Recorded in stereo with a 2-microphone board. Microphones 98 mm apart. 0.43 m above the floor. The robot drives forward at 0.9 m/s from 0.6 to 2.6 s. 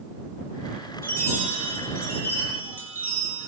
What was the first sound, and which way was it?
A chime, 30° left (ahead or behind).